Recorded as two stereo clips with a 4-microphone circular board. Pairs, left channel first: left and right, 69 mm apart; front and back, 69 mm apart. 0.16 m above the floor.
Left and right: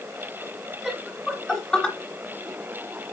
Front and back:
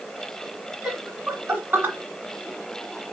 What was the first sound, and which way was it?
Laughter, 170° right.